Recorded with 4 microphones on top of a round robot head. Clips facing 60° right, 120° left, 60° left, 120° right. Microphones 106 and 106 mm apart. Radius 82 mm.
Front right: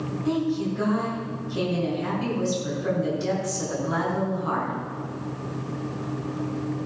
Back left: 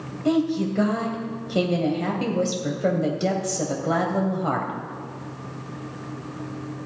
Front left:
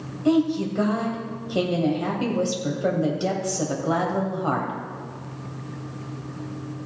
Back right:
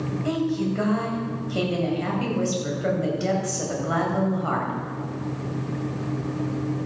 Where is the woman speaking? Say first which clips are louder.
Back left 4 dB, front left 5 dB; 125° left, 2.5 m.